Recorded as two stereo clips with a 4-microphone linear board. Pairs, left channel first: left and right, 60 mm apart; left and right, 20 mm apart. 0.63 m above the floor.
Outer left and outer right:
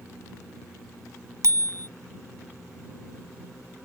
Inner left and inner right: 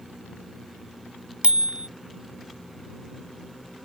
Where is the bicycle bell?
65° right (ahead or behind).